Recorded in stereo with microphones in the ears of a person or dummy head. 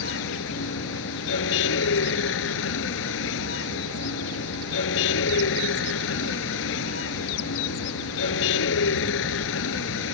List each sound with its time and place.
0.0 s a vehicle: 75° left (ahead or behind)